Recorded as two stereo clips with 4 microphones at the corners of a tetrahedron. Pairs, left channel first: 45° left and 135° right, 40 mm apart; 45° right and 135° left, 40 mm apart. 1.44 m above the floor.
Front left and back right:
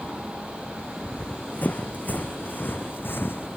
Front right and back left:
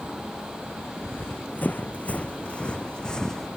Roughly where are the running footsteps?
Ahead.